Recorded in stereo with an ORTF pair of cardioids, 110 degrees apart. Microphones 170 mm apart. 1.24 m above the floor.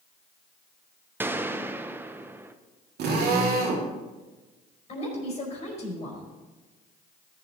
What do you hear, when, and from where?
1.2 s a gunshot: 10° right, 0.6 m
3.0 s a drill: 65° right, 2.5 m
4.9 s a woman speaking: 40° left, 4.5 m